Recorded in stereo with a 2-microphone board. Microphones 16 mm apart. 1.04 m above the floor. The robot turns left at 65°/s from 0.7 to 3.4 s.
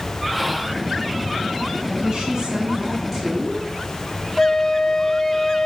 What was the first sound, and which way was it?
Whispering, 5° right (ahead or behind).